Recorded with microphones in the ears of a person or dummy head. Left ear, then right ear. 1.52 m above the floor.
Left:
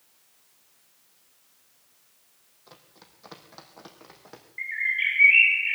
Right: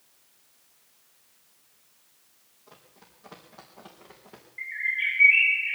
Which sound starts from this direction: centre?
A bird, at 4.6 s.